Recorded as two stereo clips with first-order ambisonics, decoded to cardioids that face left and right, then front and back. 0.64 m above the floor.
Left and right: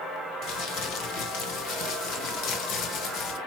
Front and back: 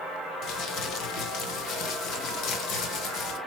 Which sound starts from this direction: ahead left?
Crumpling, at 0.4 s.